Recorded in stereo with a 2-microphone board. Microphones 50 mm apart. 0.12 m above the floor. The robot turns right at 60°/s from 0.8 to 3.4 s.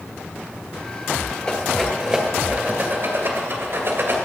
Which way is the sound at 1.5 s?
15° left (ahead or behind).